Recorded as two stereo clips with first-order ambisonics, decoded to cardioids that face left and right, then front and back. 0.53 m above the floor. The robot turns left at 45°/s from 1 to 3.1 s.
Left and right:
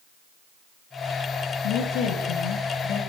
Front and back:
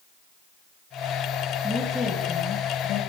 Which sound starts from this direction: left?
A woman speaking, at 1.6 s.